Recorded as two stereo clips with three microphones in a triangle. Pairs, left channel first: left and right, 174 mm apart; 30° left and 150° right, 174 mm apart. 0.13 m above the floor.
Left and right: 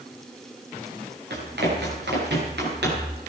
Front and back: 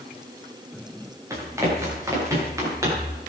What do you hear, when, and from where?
1.3 s running footsteps: 80° right, 8.5 m